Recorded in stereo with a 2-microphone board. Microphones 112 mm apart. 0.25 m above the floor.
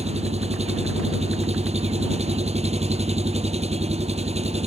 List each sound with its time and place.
0.0 s an engine running: 75° right (ahead or behind)